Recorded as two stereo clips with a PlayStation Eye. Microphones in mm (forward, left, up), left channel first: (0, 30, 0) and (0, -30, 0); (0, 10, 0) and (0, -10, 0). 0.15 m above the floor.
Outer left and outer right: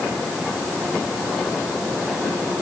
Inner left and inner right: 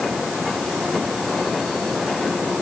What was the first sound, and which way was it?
Only background noise.